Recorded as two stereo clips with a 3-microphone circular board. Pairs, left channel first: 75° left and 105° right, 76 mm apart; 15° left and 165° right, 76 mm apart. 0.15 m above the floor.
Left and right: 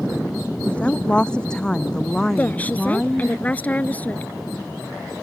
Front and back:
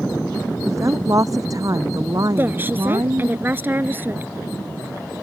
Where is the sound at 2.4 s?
140° left.